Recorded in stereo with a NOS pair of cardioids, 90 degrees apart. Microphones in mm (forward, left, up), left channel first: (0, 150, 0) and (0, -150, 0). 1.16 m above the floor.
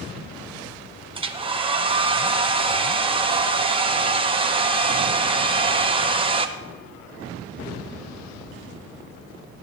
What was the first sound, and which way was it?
A hair dryer, 20° right.